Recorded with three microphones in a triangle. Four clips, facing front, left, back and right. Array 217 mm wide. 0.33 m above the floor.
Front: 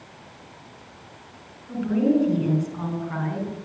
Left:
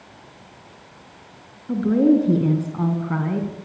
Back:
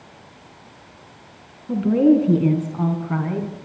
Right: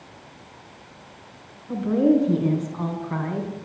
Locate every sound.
1.7 s a woman speaking: 140° left, 4 m; by 3.5 s 120° left, 3.5 m